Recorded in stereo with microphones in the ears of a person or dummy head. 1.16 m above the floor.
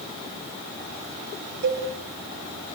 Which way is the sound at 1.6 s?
50° right (ahead or behind).